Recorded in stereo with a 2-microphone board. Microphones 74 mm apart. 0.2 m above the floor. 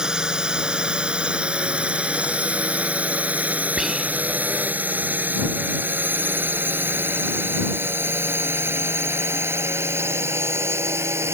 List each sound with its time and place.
0.0 s a drone: 10° right (ahead or behind); by 11.3 s 35° right (ahead or behind)
3.8 s whispering: 5° right (ahead or behind)